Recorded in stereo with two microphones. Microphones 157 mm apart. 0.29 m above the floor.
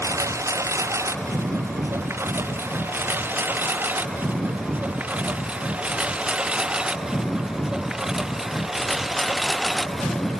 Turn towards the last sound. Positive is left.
turn(degrees=0)  # may be behind; listen again after turning